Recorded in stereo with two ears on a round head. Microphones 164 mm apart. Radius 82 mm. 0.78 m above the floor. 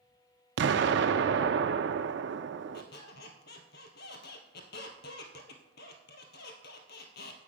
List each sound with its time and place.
0.6 s an explosion: 65° right (ahead or behind), 0.6 m
2.7 s a squeak: 60° left (ahead or behind), 1.5 m